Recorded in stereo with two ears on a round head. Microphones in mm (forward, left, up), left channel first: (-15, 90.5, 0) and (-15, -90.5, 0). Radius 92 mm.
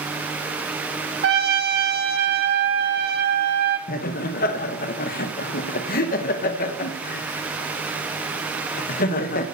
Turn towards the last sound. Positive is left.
turn(degrees=45)  # may be behind; listen again after turning